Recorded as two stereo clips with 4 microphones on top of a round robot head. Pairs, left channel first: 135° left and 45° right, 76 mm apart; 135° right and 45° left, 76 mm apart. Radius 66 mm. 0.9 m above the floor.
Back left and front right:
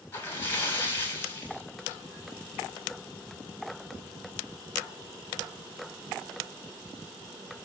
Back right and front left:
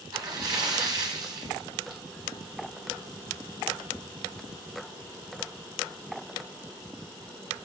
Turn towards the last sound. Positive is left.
turn(degrees=75)